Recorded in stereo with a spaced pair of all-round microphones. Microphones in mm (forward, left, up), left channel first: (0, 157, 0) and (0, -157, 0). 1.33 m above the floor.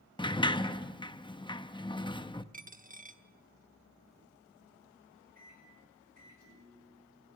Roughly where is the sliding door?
Centre.